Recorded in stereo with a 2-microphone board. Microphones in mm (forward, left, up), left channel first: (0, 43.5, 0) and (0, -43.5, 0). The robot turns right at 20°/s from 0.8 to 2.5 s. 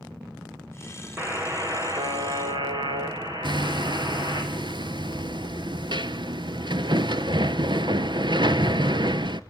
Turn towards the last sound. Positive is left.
turn(degrees=-60)  # may be behind; listen again after turning